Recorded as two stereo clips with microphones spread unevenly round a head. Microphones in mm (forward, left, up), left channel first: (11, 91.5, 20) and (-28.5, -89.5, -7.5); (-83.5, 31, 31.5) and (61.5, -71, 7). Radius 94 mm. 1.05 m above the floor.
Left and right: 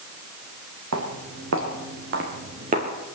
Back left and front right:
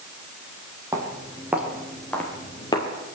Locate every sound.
0.9 s footsteps: 110° right, 3 m; by 2.9 s 160° right, 2 m